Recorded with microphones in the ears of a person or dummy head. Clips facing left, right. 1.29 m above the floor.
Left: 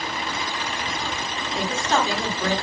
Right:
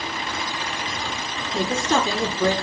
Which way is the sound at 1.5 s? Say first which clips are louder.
Right 2 dB; 70° right (ahead or behind).